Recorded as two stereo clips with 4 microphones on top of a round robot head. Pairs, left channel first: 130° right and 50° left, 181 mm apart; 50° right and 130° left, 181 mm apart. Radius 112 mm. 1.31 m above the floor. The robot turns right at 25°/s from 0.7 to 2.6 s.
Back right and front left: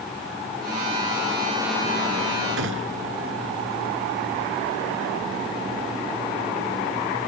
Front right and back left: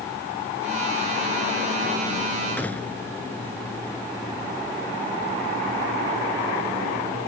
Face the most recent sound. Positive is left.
turn(degrees=35)